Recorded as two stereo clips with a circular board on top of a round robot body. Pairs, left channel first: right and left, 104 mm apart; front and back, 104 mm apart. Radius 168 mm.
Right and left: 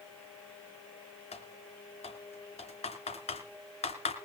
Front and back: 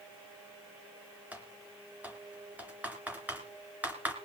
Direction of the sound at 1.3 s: 105° right.